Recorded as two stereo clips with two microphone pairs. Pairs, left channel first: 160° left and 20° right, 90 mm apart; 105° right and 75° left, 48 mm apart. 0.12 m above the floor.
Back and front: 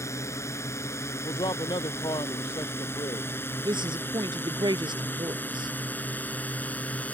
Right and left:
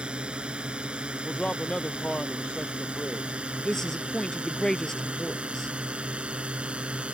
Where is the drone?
130° left; by 7.2 s 105° left.